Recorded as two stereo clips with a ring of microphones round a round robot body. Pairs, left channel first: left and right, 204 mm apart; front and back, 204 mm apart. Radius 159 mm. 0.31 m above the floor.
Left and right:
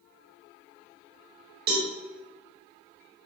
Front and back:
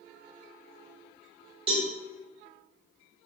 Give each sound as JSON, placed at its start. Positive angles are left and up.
{"t": 1.7, "sound": "a cowbell", "azimuth_deg": -120, "distance_m": 0.8}